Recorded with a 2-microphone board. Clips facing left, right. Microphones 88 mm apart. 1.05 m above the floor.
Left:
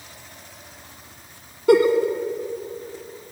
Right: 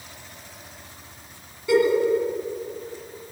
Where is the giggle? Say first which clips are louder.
Left 4 dB; 55° left (ahead or behind), 1.5 m.